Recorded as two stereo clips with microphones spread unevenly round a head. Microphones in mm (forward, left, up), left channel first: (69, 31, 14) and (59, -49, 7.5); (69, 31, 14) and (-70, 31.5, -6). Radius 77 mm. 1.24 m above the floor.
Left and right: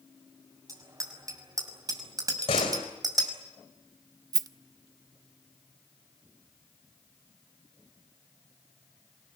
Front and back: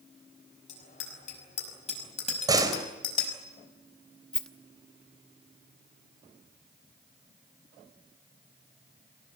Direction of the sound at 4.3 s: 75° right.